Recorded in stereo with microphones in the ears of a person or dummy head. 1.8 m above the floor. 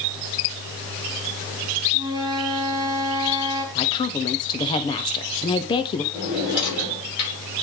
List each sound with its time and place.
1.9 s a flute: 20° right (ahead or behind), 1.3 m
3.8 s a woman speaking: 30° left (ahead or behind), 0.7 m
6.1 s a drawer: 25° left (ahead or behind), 6 m